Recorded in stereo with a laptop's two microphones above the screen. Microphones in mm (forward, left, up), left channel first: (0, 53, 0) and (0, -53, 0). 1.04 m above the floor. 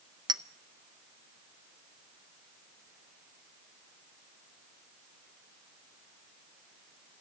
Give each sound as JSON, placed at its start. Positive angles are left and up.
{"t": 0.3, "sound": "a clink", "side_deg": -40, "distance_m": 0.5}